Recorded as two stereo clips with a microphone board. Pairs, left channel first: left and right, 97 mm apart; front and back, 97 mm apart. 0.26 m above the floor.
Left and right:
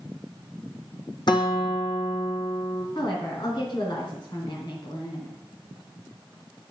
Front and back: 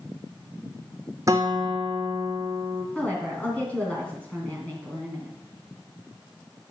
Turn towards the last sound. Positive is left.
turn(degrees=70)